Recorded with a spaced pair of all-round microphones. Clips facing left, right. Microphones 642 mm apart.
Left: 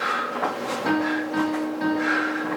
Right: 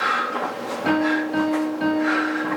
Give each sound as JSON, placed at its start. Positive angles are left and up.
{"t": 0.8, "sound": "a piano", "side_deg": -15, "distance_m": 1.7}